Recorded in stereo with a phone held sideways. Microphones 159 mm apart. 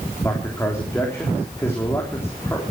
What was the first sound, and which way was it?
A man speaking, 15° left (ahead or behind).